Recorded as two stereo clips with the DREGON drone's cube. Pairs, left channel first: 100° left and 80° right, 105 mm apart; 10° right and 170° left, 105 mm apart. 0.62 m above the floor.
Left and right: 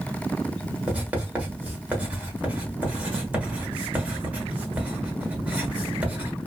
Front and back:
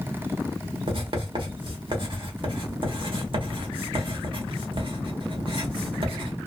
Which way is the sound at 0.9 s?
155° right.